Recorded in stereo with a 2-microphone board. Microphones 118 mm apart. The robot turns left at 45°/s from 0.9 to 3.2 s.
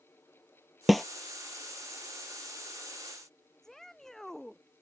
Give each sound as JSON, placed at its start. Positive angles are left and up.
{"t": 0.9, "sound": "a snare drum", "side_deg": 0}
{"t": 3.6, "sound": "a shout", "side_deg": 5}